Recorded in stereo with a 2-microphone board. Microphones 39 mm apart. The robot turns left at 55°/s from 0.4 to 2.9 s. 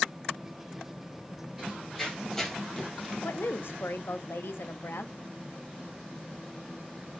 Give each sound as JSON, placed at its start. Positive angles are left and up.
{"t": 1.6, "sound": "running footsteps", "side_deg": -10, "distance_m": 3.5}
{"t": 3.2, "sound": "a woman speaking", "side_deg": 70, "distance_m": 0.7}